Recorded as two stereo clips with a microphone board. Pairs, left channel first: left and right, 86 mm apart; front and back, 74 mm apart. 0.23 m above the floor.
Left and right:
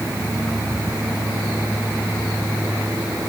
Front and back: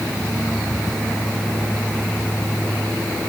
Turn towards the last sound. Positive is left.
No sound to turn to.